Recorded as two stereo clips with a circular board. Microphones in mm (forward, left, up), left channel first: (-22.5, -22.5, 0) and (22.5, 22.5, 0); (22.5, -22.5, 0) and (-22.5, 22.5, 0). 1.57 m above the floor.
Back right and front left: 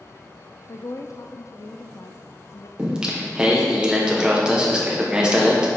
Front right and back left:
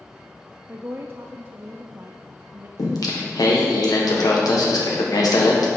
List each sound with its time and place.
0.7 s a woman speaking: 170° right, 0.5 m
2.8 s singing: 30° right, 1.6 m